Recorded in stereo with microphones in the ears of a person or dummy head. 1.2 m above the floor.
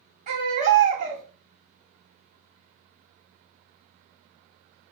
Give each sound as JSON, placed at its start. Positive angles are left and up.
{"t": 0.3, "sound": "a baby crying", "side_deg": -45, "distance_m": 1.5}